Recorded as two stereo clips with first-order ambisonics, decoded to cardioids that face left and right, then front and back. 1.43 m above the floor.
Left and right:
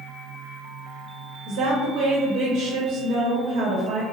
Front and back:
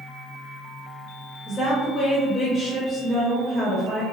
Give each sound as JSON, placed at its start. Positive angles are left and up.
{"t": 1.5, "sound": "a woman speaking", "azimuth_deg": -80, "distance_m": 0.6}